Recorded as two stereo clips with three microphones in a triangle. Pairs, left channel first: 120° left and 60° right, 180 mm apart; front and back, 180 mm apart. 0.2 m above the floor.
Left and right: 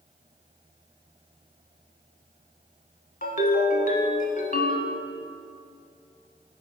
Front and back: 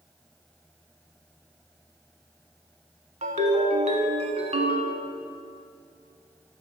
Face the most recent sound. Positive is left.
turn(degrees=140)